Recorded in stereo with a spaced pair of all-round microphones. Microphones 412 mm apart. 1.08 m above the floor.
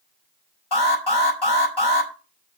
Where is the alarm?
70° left (ahead or behind), 5 m.